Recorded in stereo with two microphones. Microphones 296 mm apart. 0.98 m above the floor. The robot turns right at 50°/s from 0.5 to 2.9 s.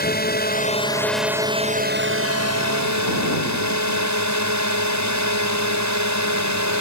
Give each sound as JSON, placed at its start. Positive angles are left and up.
{"t": 0.0, "sound": "a drone", "azimuth_deg": 145}